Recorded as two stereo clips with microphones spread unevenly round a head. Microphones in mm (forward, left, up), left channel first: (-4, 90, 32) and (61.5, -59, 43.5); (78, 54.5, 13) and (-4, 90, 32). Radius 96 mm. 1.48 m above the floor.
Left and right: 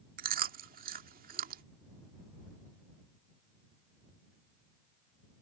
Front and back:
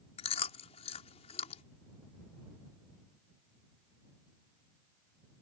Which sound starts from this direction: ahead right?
Chewing, at 0.2 s.